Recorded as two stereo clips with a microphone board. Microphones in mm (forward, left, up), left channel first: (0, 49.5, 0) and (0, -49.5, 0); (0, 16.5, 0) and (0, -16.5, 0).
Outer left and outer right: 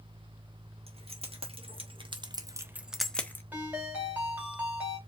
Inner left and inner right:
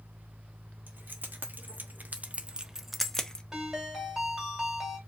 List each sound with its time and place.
0.9 s keys jangling: 80° right, 1.4 m; by 3.4 s 20° left (ahead or behind), 0.7 m
3.5 s a ringtone: 15° right (ahead or behind), 2.5 m